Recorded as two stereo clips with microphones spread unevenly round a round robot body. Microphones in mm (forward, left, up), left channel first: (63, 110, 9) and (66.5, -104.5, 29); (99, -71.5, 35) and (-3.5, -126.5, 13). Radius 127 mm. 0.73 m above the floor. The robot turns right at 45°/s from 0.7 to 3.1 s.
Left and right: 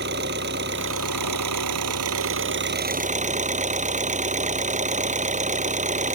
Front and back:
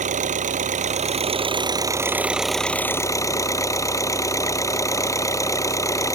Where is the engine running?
140° right; by 6.2 s 35° right.